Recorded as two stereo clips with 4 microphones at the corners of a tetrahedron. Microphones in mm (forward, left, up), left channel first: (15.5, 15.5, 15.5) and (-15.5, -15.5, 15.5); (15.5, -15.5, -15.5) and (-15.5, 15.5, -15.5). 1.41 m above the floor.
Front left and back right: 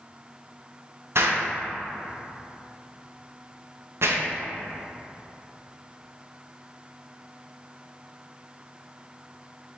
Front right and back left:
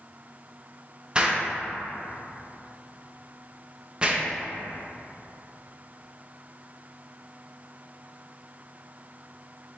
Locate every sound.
1.1 s an explosion: 155° right, 0.6 m